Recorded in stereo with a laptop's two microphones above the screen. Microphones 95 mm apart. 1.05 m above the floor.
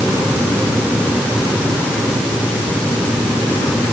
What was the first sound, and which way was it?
Only background noise.